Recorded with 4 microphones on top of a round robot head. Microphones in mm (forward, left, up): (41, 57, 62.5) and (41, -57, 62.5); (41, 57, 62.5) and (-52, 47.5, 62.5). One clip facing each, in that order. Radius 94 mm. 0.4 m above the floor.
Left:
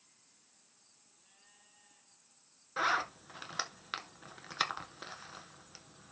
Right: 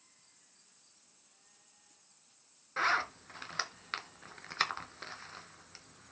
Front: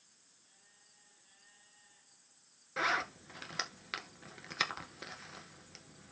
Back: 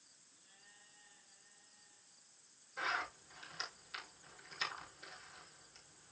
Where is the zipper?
10° left, 1.2 m.